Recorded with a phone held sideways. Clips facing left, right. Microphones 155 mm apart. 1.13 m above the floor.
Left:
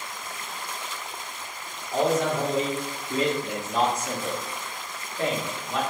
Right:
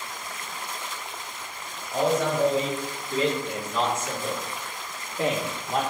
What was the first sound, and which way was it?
A man speaking, 75° left (ahead or behind).